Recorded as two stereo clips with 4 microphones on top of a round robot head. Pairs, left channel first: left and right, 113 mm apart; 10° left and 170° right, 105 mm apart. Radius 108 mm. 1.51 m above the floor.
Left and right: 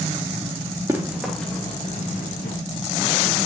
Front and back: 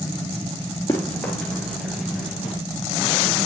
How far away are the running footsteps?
About 1.6 m.